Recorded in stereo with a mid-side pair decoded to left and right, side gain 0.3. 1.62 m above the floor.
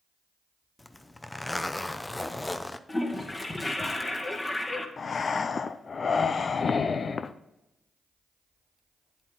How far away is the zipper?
About 0.7 m.